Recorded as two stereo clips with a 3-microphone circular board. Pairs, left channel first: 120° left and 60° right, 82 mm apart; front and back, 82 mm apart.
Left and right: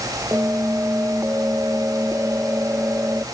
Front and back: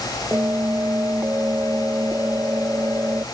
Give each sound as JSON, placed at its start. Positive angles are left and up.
{"t": 0.3, "sound": "a bell", "azimuth_deg": -120}